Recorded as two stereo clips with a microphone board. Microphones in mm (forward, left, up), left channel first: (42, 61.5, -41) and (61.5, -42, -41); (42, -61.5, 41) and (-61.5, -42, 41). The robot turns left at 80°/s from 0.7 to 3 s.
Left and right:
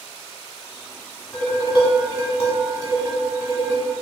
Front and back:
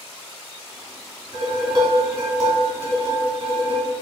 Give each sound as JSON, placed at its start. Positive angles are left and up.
{"t": 1.3, "sound": "dishes clattering", "azimuth_deg": 170, "distance_m": 1.2}